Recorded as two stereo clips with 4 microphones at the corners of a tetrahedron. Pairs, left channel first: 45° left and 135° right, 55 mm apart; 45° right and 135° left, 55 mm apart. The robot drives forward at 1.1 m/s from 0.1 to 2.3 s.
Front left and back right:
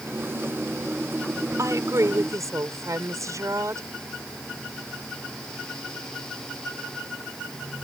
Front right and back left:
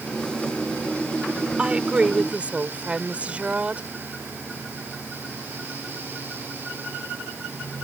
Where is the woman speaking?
155° right; by 3.9 s 160° right.